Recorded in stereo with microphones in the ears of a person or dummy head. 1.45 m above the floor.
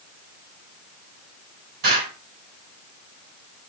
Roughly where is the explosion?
Right.